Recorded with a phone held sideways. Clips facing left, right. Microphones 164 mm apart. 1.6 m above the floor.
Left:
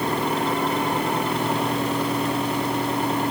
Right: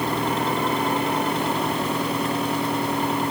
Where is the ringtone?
No ringtone in this recording.